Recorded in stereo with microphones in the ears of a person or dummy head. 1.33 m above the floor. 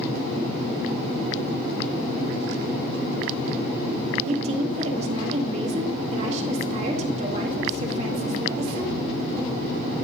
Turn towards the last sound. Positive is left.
turn(degrees=-40)  # may be behind; listen again after turning